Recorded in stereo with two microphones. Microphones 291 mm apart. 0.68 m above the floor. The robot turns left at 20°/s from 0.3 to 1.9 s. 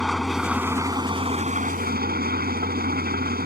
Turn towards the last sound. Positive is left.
turn(degrees=-30)